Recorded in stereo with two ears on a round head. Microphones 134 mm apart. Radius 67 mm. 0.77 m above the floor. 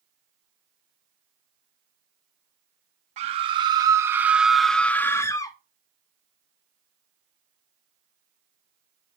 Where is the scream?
45° right (ahead or behind), 1.2 m; by 5.5 s 25° left (ahead or behind), 1.3 m.